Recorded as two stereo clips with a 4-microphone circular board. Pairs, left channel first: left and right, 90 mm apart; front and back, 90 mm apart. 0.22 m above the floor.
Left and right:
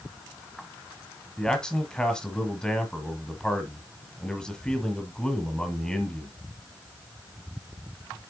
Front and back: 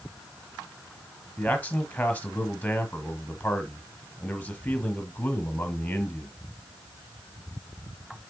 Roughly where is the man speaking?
Ahead left.